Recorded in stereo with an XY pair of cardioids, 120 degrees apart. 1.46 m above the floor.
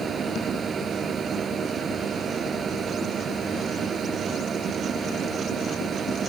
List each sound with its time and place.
0.0 s a machine running: 40° right